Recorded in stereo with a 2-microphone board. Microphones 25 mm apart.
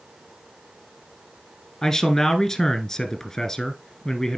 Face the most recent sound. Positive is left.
turn(degrees=20)  # may be behind; listen again after turning